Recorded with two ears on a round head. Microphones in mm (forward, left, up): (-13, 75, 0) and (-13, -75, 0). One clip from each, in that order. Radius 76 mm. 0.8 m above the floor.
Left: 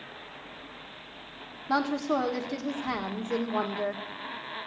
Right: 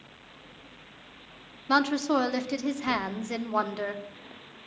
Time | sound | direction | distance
1.7 | a woman speaking | 55° right (ahead or behind) | 1.6 m